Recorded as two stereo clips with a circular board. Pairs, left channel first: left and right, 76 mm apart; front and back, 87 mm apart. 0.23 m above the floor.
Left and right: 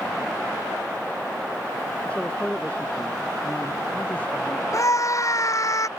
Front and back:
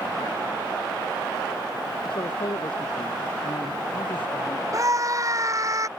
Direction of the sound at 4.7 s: 130° left.